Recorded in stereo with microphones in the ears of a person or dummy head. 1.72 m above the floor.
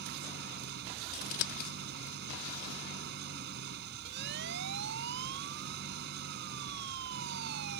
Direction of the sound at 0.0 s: 55° right (ahead or behind).